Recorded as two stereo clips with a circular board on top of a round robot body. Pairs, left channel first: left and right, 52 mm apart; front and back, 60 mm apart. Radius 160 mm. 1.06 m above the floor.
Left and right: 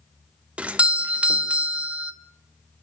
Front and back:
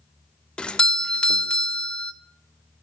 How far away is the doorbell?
About 0.5 m.